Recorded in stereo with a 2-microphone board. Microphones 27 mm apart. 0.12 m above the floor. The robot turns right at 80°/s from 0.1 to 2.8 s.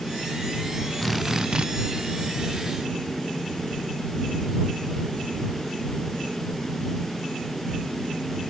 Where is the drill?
170° left; by 1.7 s 135° right.